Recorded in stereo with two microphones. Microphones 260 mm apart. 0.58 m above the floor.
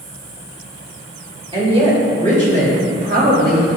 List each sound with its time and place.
1.5 s a woman speaking: 20° right (ahead or behind), 2 m; by 3.7 s 40° right (ahead or behind), 4 m